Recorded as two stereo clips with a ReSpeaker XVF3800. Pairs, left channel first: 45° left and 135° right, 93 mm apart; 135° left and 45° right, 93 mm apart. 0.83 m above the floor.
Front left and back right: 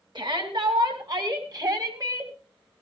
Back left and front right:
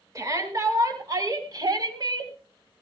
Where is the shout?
100° right, 6 m; by 2.3 s 85° right, 4 m.